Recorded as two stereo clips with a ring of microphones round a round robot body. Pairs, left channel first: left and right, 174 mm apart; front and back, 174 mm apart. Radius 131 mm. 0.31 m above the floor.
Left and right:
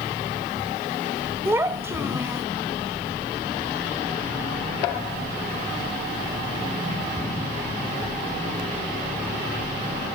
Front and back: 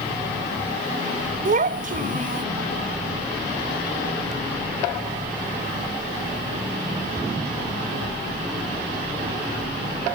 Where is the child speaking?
165° right, 1.0 m.